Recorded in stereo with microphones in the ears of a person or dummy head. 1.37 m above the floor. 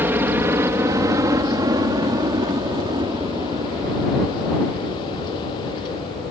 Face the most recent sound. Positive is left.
turn(degrees=-30)  # may be behind; listen again after turning